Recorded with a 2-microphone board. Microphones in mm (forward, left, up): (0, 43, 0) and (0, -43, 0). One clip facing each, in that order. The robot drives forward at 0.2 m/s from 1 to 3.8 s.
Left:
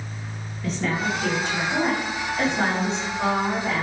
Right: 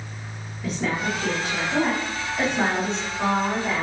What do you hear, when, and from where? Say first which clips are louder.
0.6 s a woman speaking: even; 5° right (ahead or behind), 1.4 m